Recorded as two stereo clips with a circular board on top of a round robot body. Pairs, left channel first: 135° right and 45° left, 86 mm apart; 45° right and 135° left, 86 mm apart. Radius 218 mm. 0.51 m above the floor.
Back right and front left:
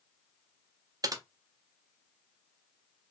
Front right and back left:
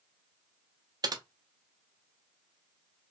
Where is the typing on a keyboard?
90° left, 0.5 m.